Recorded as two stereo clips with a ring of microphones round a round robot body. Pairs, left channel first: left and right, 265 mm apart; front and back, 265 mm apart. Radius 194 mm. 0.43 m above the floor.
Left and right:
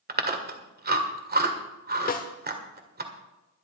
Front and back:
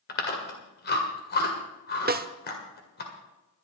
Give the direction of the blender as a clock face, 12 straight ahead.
I don't hear a blender.